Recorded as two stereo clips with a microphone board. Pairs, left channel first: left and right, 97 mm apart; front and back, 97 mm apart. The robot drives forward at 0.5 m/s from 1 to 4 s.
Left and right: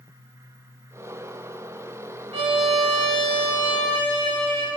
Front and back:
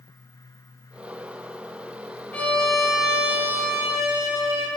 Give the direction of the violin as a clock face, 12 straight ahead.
2 o'clock.